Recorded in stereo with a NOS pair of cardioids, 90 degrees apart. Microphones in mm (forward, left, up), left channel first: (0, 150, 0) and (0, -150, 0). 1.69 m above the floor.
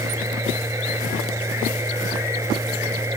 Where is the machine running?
10° right.